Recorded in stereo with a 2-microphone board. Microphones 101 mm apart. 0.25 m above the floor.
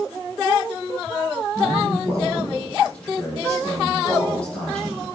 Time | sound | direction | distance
1.6 | a man speaking | 10° left (ahead or behind) | 7 m